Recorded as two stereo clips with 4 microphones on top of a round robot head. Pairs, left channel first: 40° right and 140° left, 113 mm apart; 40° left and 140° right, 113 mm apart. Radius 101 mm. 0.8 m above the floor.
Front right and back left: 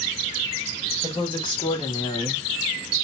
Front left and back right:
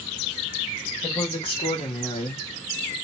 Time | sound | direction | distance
1.0 | a woman speaking | straight ahead | 2.5 m